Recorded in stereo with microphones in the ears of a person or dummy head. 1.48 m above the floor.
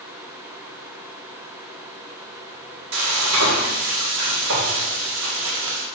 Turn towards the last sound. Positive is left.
turn(degrees=-80)